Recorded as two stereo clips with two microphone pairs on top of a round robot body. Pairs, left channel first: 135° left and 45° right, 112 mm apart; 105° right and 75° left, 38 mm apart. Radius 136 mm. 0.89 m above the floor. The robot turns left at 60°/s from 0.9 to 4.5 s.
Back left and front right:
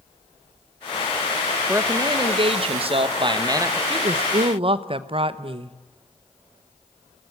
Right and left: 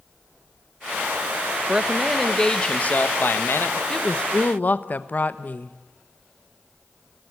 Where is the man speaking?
15° left, 1.6 m; by 3.8 s 110° right, 1.6 m.